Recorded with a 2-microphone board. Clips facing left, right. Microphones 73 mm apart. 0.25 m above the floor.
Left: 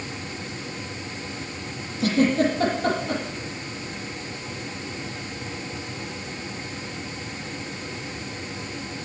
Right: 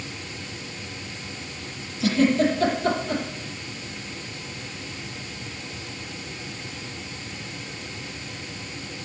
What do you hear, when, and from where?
2.0 s a giggle: 50° left (ahead or behind), 9 m